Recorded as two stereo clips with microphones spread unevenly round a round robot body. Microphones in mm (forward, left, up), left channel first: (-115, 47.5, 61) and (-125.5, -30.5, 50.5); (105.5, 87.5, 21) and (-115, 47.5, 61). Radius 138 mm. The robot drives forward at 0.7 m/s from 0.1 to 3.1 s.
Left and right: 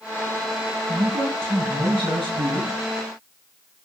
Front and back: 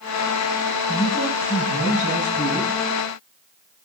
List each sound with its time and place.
0.9 s a man speaking: 65° right, 6 m; by 2.7 s 80° right, 5.5 m